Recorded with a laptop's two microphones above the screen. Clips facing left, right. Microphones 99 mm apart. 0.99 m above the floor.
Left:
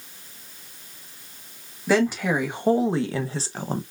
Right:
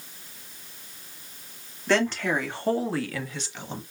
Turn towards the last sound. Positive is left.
turn(degrees=45)  # may be behind; listen again after turning